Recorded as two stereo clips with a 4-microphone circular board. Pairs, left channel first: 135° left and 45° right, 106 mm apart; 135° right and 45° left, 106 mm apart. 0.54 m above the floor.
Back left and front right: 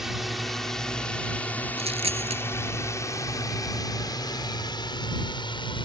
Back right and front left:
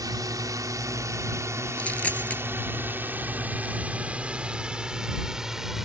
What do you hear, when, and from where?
0.0 s a drone: 40° left; by 5.9 s 130° left
1.8 s a dropped coin: 60° right